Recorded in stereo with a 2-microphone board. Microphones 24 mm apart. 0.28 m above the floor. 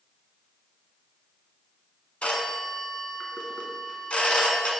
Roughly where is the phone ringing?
Left.